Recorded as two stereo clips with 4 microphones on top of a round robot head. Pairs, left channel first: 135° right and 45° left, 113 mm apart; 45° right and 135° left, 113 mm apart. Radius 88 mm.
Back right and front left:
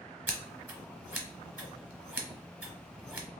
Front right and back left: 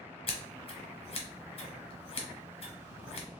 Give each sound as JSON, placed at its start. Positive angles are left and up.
{"t": 0.3, "sound": "scissors", "azimuth_deg": -25, "distance_m": 1.0}